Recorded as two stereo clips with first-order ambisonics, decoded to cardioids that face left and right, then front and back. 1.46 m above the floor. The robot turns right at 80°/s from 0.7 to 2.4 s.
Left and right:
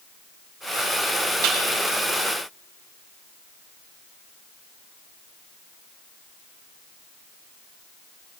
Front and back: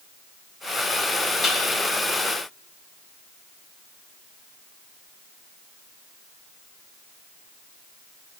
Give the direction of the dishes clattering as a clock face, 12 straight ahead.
2 o'clock.